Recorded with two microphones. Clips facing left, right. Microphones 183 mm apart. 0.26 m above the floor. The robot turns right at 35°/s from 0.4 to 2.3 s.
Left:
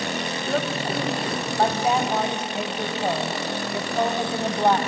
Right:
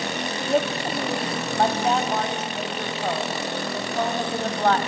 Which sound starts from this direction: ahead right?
A woman speaking, at 0.4 s.